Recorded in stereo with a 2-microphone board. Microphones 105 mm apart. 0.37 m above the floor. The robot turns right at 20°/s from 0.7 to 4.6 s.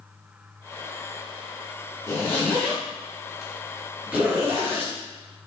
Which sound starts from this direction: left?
A zipper, at 2.1 s.